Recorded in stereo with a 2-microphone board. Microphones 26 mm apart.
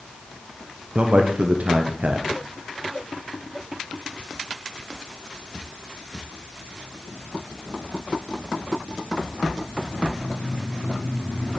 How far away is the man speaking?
About 0.7 m.